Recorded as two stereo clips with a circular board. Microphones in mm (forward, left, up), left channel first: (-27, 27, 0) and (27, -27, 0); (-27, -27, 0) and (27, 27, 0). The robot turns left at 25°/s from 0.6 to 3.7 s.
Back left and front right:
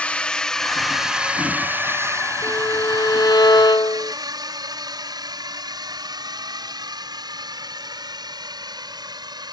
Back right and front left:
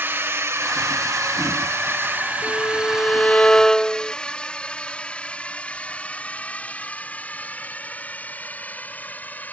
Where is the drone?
75° left; by 9.5 s 65° right.